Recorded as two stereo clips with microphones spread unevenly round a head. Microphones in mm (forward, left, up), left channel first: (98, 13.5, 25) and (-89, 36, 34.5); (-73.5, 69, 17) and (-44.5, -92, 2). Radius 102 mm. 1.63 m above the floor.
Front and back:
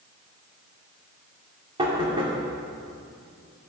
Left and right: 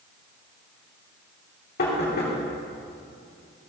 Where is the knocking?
110° left, 3 m.